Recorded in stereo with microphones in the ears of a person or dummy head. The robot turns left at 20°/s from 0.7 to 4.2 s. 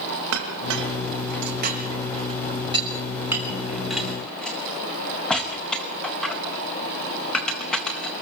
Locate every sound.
0.3 s a clink: 65° right (ahead or behind), 4.5 m; by 8.2 s centre (ahead or behind), 4.5 m